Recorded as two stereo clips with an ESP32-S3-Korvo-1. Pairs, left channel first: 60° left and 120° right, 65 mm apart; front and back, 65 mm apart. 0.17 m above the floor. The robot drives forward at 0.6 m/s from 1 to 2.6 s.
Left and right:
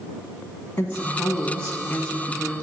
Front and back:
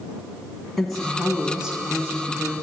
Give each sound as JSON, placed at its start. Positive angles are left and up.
{"t": 0.8, "sound": "a woman speaking", "azimuth_deg": 75, "distance_m": 1.2}